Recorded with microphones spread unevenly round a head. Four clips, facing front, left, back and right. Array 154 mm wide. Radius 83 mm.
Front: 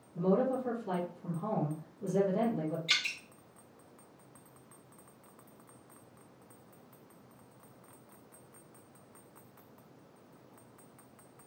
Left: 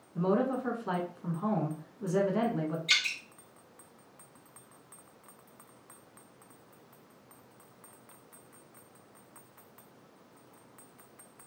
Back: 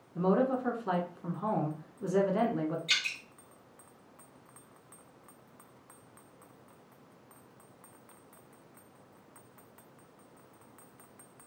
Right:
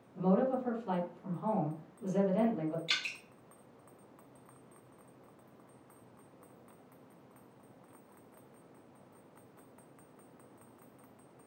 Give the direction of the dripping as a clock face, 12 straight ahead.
2 o'clock.